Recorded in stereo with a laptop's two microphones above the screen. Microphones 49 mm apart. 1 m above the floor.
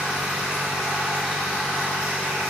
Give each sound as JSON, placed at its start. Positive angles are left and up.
{"t": 0.0, "sound": "a machine running", "side_deg": -10, "distance_m": 3.0}